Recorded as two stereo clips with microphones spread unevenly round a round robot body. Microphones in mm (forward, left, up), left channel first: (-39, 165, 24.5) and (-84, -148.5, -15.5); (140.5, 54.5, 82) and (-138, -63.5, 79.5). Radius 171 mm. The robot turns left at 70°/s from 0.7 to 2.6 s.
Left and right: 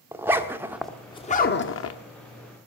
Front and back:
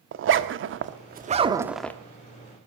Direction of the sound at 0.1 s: 170° right.